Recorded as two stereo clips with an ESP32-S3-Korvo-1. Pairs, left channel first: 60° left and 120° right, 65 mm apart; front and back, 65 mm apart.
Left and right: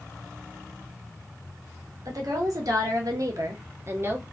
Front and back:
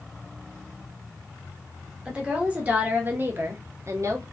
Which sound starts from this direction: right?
A woman speaking, at 2.0 s.